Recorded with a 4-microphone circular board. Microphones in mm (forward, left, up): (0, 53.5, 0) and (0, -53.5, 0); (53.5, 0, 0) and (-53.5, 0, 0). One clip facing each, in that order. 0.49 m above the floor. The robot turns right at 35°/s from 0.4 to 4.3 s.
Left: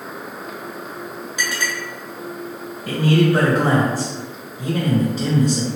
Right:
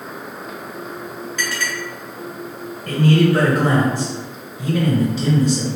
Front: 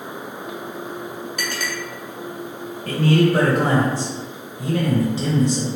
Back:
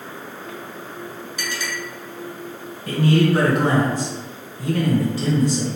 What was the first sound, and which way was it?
A clink, 15° left.